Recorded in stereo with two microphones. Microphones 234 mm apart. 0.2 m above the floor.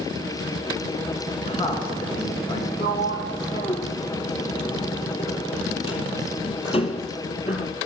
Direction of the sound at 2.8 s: 25° left (ahead or behind).